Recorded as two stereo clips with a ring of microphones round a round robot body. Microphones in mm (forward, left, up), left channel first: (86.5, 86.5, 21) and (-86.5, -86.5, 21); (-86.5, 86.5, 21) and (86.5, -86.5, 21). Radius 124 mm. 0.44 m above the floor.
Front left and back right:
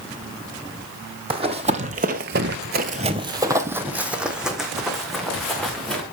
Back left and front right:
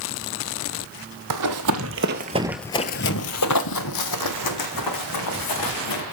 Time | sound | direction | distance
1.3 | running footsteps | 65° right | 1.2 m